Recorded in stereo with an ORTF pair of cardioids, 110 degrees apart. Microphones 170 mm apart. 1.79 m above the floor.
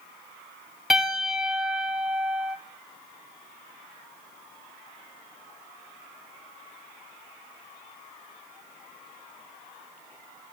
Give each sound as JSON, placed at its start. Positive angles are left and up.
{"t": 0.9, "sound": "a piano", "azimuth_deg": 0, "distance_m": 1.2}